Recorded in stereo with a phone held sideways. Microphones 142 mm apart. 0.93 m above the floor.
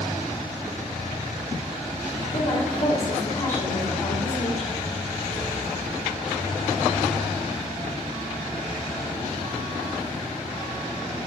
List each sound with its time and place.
2.3 s a woman speaking: 70° left (ahead or behind), 2.5 m